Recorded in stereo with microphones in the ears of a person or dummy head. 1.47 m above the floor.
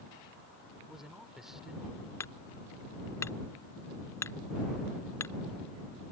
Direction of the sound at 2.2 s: 15° left (ahead or behind).